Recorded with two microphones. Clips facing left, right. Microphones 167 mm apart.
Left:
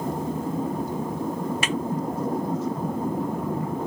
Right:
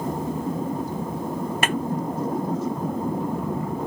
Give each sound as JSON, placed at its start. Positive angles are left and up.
{"t": 1.6, "sound": "a snare drum", "side_deg": -60}